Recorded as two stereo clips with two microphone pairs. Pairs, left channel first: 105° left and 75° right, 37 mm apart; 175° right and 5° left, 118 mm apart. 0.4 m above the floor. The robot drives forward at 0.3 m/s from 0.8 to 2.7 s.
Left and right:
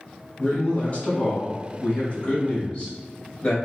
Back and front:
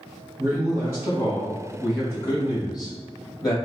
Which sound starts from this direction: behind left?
A man speaking, at 0.4 s.